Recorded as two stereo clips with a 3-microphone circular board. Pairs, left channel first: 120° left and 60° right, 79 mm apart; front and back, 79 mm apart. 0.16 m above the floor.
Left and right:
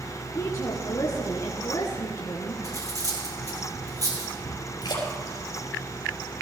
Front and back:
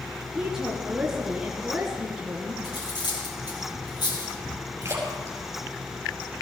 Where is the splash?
130° left, 4 m.